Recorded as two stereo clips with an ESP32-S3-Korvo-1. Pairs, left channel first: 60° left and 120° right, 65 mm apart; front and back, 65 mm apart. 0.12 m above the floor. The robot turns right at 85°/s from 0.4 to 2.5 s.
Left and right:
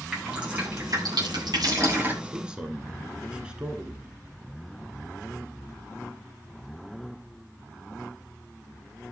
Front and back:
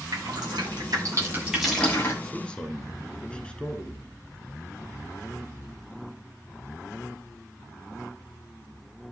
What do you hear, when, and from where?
0.1 s dripping: 160° left, 8 m; by 2.1 s 50° right, 8 m
2.2 s a man speaking: 80° right, 1.7 m; by 4.2 s 55° right, 1.7 m